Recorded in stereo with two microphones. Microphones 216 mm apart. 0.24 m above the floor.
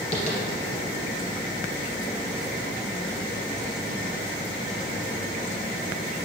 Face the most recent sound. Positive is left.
turn(degrees=30)  # may be behind; listen again after turning